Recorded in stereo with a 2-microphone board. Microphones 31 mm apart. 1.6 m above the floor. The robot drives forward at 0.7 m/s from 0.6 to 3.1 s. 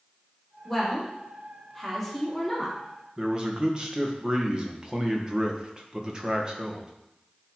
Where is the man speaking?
25° right (ahead or behind), 1.6 m.